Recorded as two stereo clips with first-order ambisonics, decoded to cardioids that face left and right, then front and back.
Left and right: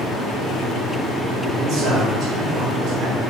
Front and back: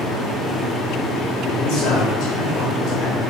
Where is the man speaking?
35° right, 4 m.